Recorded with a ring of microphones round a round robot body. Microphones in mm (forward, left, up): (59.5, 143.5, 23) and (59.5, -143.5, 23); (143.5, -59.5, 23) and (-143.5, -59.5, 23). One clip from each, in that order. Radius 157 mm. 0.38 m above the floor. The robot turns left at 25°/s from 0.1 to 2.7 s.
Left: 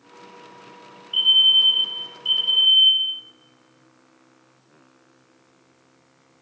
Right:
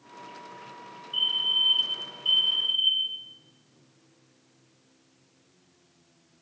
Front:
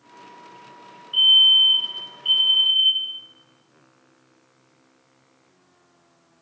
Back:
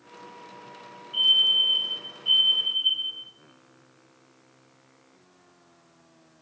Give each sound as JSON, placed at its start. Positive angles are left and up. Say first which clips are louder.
{"t": 1.1, "sound": "a fire alarm", "louder": "left 10 dB, front 6 dB", "azimuth_deg": 45, "distance_m": 5.5}